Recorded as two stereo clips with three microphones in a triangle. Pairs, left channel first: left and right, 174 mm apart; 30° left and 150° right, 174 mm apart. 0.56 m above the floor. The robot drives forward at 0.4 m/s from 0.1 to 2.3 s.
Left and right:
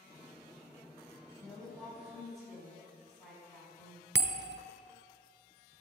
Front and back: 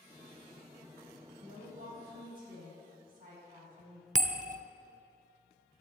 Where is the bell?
105° right, 0.7 m.